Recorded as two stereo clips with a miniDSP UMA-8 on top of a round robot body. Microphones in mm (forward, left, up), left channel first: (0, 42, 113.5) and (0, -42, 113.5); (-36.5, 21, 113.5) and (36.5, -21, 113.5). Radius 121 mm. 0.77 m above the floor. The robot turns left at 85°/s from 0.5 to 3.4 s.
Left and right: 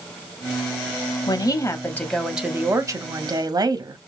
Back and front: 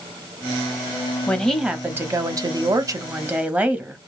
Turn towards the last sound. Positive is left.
turn(degrees=-95)